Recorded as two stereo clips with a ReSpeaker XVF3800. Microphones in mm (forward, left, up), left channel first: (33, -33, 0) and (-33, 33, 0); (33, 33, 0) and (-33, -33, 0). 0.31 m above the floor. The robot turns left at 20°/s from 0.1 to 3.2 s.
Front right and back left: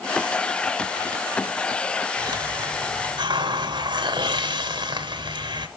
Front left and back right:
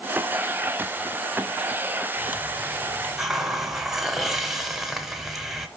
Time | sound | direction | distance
2.2 | a hiss | 160° left | 0.9 m